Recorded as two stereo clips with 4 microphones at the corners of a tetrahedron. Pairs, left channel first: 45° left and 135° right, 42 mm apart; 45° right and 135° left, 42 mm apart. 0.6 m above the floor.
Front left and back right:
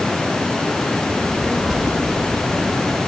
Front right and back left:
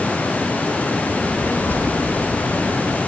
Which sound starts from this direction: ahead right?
A child speaking, at 1.1 s.